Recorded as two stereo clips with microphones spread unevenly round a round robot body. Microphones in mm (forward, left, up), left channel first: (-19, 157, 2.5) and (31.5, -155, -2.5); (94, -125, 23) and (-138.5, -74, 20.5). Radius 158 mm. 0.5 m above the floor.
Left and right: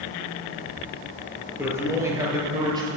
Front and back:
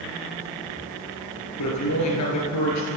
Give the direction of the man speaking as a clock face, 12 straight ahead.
12 o'clock.